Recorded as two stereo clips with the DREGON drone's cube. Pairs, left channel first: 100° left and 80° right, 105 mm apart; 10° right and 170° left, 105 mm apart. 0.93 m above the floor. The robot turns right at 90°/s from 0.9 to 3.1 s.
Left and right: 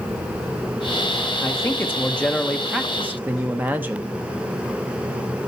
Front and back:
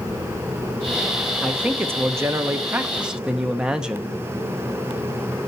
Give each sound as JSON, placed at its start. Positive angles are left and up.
{"t": 1.4, "sound": "a man speaking", "azimuth_deg": 90, "distance_m": 0.8}